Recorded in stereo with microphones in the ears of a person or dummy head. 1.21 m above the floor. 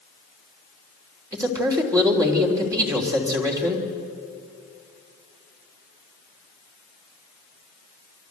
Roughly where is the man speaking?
Centre.